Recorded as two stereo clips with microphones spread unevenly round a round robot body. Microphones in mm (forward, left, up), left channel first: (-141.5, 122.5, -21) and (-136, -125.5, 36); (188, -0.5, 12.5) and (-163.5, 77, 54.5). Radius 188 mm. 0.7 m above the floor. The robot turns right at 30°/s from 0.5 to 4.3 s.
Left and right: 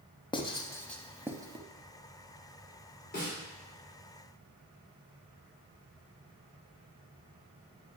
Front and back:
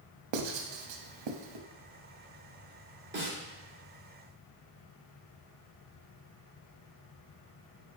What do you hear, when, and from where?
0.3 s writing: 160° left, 0.6 m; by 1.6 s 165° right, 0.6 m
3.1 s a snare drum: 110° left, 1.6 m; by 3.4 s 115° left, 1.6 m